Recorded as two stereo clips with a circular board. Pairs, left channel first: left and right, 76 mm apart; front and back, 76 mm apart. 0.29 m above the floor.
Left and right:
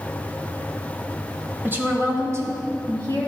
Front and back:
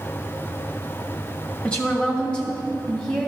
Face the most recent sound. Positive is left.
turn(degrees=-80)